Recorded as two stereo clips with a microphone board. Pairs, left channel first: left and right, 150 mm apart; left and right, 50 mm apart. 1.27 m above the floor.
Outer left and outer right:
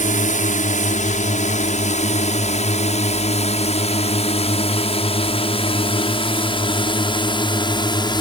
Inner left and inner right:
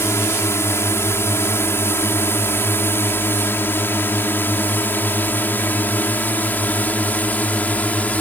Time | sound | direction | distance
0.0 | a drone | 55° left (ahead or behind) | ?